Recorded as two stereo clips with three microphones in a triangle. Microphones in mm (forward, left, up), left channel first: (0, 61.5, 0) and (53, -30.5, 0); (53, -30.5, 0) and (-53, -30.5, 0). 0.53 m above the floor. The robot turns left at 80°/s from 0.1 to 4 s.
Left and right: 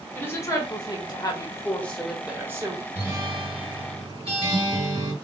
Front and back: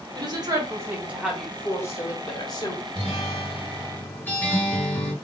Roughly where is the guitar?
Ahead.